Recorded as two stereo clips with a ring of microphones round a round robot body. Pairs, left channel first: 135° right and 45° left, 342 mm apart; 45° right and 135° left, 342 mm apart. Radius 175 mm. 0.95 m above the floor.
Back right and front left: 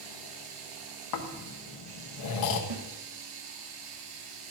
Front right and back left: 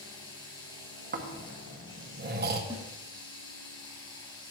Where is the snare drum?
60° left, 1.6 m.